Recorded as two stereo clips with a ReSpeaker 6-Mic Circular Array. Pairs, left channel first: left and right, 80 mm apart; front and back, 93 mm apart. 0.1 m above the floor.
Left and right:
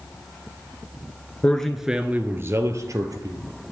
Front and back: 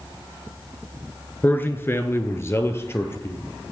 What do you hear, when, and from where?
1.4 s a man speaking: 40° left, 1.3 m; by 3.4 s 60° right, 2.5 m